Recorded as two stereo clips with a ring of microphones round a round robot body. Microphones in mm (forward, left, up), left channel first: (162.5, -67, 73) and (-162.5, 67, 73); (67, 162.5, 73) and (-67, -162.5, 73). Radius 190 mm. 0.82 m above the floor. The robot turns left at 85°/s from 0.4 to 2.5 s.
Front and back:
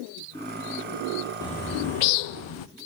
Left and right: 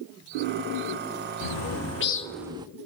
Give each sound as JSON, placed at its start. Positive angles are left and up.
{"t": 1.4, "sound": "a bird", "azimuth_deg": 60, "distance_m": 0.6}